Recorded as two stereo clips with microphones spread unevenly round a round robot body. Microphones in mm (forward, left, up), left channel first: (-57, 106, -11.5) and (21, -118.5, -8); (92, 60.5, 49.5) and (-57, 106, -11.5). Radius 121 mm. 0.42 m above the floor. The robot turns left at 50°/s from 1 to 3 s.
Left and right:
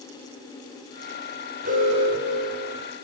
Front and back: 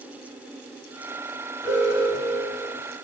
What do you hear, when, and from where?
1.6 s an alarm: 120° right, 3.5 m; by 2.8 s 175° right, 3.5 m